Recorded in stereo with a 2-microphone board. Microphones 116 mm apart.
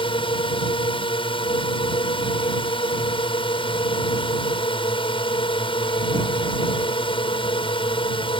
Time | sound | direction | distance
0.0 | a drone | 45° left (ahead or behind) | ?